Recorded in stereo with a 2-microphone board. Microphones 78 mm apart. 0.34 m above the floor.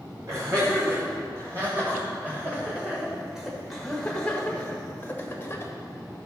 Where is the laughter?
45° right (ahead or behind), 2.5 m; by 5.7 s 35° left (ahead or behind), 1.8 m.